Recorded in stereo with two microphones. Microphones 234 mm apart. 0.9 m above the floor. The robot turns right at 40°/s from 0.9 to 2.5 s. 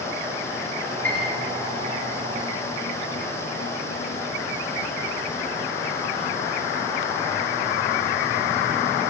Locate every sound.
1.0 s a piano: 10° left (ahead or behind), 3.5 m; by 1.4 s 5° right (ahead or behind), 3.5 m